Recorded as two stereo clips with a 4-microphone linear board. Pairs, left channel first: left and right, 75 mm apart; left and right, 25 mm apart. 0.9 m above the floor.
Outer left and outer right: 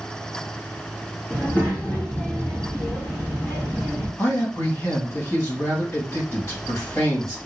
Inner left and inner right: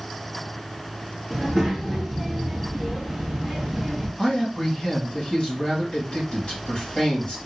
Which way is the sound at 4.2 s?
35° left (ahead or behind).